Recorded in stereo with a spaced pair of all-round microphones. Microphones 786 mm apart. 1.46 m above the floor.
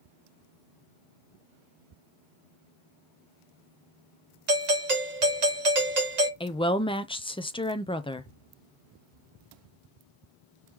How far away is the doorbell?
About 1.1 m.